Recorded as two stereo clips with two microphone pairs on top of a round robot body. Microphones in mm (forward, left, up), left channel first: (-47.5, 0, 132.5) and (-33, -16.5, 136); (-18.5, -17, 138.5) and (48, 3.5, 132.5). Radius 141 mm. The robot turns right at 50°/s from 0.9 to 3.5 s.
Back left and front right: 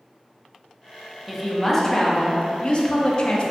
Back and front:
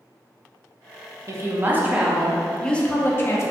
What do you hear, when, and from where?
1.3 s a woman speaking: 45° left, 0.6 m; by 3.5 s 160° left, 0.6 m